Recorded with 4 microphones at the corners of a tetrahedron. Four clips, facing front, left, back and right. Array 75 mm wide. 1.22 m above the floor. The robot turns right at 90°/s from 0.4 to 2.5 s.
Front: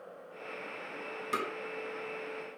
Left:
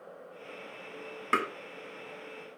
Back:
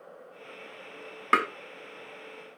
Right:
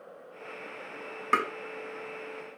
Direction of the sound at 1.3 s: 160° right.